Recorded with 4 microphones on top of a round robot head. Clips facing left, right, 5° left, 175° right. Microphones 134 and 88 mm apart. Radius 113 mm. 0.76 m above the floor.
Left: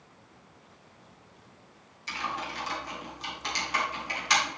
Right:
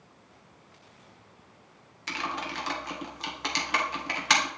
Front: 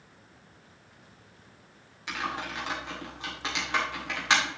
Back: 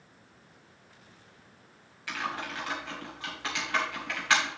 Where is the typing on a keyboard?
70° right, 2.0 m.